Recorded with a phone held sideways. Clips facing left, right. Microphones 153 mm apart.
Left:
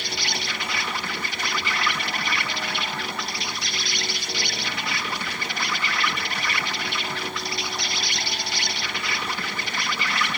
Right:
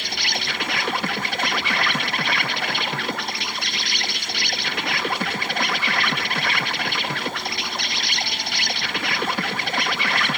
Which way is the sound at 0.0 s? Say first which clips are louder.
Right 1 dB; 60° right (ahead or behind).